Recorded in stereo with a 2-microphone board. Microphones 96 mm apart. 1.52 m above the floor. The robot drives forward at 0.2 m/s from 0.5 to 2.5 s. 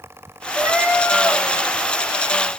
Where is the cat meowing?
15° right (ahead or behind), 0.9 m.